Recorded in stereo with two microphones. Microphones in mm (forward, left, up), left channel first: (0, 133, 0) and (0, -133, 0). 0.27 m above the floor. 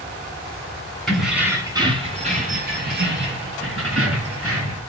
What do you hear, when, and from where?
1.1 s keys jangling: centre (ahead or behind), 1.8 m; by 4.8 s 60° right (ahead or behind), 3.5 m